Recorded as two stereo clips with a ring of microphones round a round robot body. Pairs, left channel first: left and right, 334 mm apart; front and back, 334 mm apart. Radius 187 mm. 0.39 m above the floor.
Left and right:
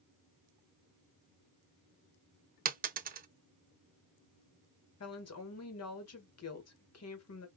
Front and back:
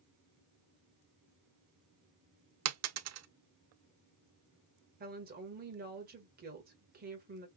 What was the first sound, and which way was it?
A dropped coin, 150° right.